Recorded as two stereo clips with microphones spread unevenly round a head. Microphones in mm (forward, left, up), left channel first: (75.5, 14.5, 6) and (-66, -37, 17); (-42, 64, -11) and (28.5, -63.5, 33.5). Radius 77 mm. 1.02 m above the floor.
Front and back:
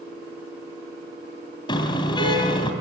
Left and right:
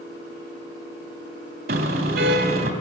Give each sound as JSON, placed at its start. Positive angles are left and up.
{"t": 1.7, "sound": "a car horn", "azimuth_deg": -40, "distance_m": 2.5}